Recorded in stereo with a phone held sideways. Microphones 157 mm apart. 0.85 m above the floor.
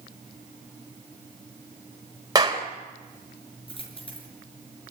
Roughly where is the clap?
Right.